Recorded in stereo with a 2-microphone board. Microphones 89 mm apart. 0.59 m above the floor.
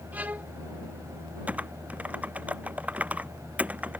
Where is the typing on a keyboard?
15° right (ahead or behind).